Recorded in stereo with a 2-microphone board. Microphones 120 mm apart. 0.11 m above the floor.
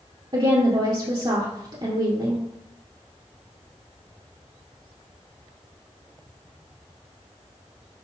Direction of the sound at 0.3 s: 45° right (ahead or behind).